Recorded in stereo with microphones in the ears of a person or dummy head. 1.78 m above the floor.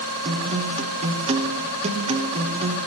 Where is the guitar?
35° right (ahead or behind), 0.8 m.